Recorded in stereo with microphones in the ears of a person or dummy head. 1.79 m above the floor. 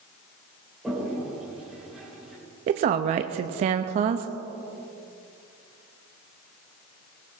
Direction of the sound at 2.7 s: 45° right (ahead or behind).